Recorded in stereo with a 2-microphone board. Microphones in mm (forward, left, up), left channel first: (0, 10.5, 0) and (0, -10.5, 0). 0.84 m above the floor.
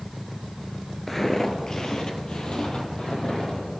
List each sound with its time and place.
1.1 s footsteps: 5° left (ahead or behind), 0.9 m; by 3.7 s 45° left (ahead or behind), 2.5 m